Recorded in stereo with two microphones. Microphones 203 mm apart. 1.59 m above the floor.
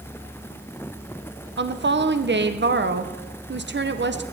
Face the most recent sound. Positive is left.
turn(degrees=-60)  # may be behind; listen again after turning